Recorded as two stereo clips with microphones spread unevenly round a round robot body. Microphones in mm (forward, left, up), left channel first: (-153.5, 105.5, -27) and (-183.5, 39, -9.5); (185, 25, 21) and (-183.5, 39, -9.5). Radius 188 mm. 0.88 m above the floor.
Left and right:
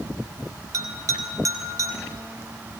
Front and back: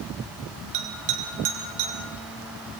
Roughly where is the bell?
Behind right.